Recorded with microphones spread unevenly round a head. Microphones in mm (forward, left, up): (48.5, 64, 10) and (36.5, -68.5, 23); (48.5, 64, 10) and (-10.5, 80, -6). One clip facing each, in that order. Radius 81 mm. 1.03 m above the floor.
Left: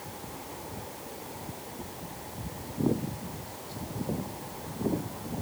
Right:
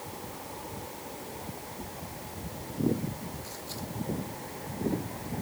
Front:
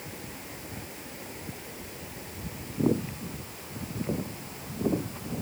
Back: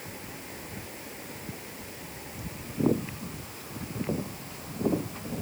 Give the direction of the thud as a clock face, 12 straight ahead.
No thud in this recording.